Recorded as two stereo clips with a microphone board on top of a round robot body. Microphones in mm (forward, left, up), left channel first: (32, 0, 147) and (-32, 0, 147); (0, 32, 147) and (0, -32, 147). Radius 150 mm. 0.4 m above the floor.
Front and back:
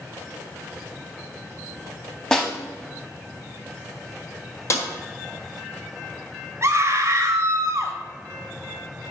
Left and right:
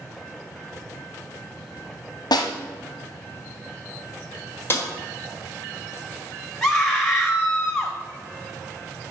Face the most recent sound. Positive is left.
turn(degrees=170)